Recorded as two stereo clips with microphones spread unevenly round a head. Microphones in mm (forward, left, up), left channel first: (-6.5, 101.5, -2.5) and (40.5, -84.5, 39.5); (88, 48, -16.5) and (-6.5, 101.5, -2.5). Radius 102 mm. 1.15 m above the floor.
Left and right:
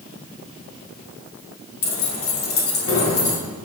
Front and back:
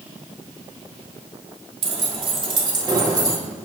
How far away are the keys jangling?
About 2 m.